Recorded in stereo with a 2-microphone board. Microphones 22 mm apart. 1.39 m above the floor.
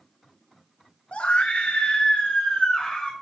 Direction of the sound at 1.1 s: 90° left.